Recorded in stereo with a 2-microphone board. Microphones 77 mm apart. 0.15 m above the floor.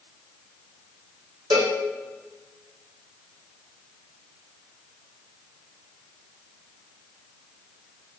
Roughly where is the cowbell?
Right.